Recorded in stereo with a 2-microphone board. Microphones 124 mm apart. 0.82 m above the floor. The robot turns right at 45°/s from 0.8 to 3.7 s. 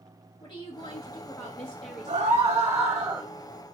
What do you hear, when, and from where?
0.4 s a woman speaking: 125° left, 1.4 m; by 2.6 s 155° right, 1.4 m
2.1 s a scream: 60° right, 0.7 m; by 3.3 s 5° right, 0.7 m